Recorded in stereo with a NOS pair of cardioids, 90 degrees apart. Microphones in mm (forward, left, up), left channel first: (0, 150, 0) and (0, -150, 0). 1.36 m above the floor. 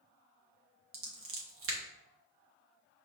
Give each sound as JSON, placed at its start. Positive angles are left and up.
{"t": 0.9, "sound": "scissors", "azimuth_deg": -45, "distance_m": 1.1}